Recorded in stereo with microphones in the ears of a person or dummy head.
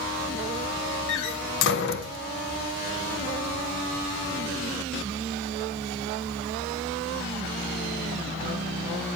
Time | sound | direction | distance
1.1 | a door slam | 65° left (ahead or behind) | 0.9 m